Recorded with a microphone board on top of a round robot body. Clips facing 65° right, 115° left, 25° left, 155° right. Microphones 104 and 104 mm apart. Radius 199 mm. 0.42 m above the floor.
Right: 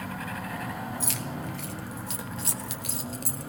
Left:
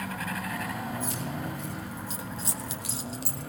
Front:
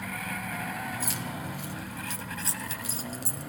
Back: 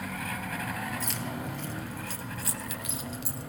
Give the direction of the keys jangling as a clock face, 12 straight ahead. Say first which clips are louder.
Left 1 dB, even; 2 o'clock.